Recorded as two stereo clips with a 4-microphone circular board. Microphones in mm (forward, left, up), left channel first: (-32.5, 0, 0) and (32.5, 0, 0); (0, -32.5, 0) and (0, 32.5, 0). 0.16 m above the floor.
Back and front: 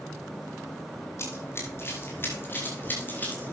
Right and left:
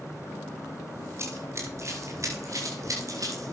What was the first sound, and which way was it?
Running footsteps, 135° left.